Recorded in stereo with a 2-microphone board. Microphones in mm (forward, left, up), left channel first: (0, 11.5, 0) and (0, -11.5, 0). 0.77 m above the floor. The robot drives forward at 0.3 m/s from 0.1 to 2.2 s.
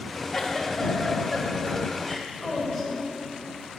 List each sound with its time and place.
0.3 s a giggle: 5° left (ahead or behind), 1.0 m